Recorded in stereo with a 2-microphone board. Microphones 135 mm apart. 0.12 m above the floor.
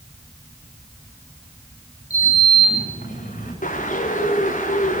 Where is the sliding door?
85° left, 9.5 m.